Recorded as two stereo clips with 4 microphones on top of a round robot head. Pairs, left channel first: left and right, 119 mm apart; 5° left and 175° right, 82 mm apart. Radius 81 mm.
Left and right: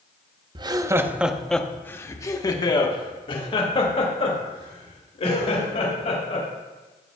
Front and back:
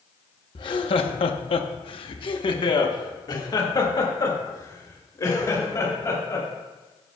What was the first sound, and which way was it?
Laughter, 40° right.